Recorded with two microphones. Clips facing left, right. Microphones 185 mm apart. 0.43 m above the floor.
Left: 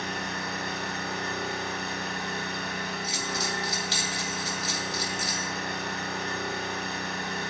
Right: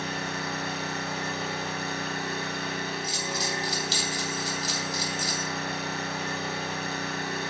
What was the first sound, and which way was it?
An engine running, 5° right (ahead or behind).